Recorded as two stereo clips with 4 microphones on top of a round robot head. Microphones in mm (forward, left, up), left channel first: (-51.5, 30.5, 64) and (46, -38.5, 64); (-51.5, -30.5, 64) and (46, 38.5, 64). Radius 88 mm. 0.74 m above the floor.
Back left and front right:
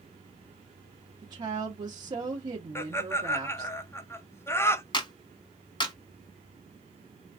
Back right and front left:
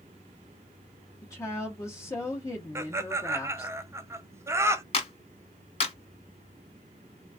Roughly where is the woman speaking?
Right.